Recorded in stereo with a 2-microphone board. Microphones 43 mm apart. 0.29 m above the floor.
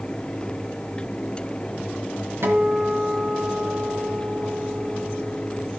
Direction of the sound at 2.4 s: 70° right (ahead or behind).